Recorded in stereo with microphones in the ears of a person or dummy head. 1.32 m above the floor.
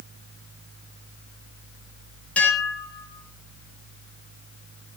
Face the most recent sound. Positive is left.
turn(degrees=5)  # may be behind; listen again after turning